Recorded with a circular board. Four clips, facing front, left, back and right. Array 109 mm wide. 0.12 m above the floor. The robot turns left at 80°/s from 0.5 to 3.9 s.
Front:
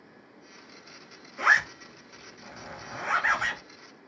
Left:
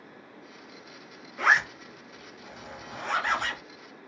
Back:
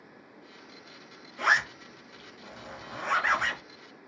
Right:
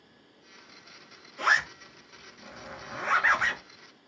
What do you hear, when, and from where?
1.4 s a zipper: 65° left, 1.1 m; by 3.6 s 110° right, 1.1 m